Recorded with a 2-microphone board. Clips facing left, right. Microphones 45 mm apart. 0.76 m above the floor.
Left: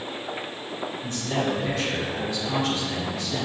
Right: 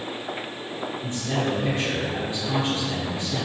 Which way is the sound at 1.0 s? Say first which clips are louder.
Even; 25° right (ahead or behind).